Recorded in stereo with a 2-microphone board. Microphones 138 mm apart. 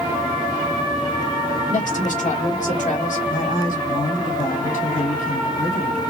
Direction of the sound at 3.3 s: 75° left (ahead or behind).